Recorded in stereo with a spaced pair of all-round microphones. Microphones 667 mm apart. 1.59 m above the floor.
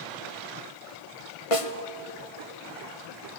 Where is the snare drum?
55° left (ahead or behind), 1.1 m.